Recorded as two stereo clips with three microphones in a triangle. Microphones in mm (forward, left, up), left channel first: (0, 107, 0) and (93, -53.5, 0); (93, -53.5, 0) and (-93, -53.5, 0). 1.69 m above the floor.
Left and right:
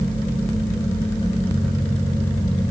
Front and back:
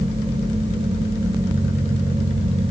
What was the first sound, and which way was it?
Only background noise.